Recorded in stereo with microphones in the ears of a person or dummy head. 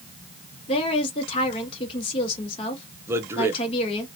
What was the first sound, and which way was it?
A woman speaking, 35° left (ahead or behind).